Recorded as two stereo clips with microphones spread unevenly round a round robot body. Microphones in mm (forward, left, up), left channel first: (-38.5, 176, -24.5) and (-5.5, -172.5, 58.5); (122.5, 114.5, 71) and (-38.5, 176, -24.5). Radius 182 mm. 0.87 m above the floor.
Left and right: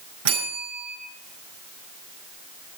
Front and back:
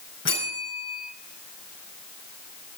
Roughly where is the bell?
Ahead right.